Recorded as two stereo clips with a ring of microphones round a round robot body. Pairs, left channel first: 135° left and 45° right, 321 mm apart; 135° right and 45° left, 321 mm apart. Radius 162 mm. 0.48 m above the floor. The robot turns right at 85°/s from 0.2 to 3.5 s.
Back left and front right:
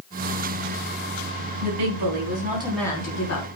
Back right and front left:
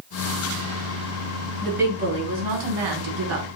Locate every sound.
1.6 s a woman speaking: 55° right, 4.5 m; by 3.5 s 105° left, 4.5 m